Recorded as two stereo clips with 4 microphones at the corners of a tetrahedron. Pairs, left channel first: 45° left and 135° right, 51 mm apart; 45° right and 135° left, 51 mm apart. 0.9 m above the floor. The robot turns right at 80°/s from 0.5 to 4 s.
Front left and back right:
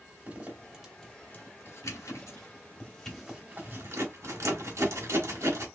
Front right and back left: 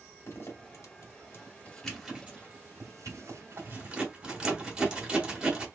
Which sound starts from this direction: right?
A zipper, at 0.3 s.